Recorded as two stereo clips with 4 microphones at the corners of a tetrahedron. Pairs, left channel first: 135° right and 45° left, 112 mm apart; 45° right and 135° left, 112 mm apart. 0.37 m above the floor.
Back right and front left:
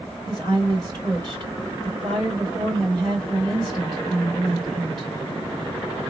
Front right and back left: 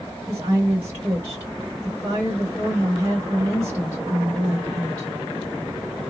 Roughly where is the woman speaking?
Left.